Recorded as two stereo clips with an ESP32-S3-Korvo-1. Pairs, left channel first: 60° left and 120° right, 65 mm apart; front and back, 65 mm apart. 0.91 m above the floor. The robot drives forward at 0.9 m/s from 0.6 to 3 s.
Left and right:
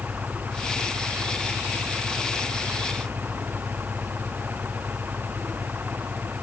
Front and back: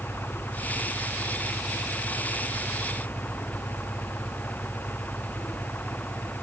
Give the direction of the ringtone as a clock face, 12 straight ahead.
I don't hear a ringtone.